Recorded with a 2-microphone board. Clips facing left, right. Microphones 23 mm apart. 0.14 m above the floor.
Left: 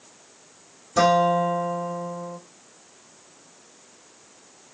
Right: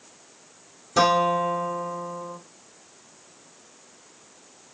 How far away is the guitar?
About 2.5 m.